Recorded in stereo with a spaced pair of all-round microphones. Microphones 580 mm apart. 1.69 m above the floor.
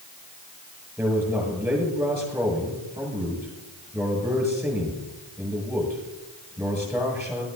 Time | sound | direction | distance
1.0 | a man speaking | 5° right (ahead or behind) | 7 m